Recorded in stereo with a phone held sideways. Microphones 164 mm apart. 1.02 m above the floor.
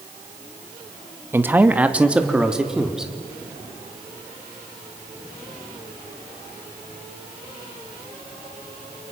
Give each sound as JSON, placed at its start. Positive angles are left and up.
{"t": 1.3, "sound": "a man speaking", "side_deg": -15, "distance_m": 1.3}